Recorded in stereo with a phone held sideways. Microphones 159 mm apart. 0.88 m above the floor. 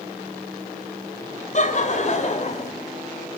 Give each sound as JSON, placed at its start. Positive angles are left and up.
{"t": 1.5, "sound": "laughter", "side_deg": 50, "distance_m": 4.0}